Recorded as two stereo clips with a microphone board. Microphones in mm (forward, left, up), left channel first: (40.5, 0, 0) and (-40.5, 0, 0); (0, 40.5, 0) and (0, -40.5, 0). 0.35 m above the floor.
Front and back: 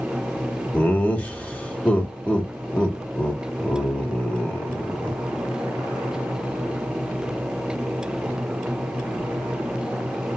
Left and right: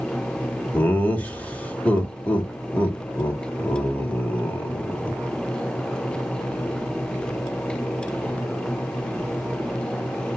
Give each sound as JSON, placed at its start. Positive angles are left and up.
{"t": 0.7, "sound": "laughter", "azimuth_deg": 45, "distance_m": 1.0}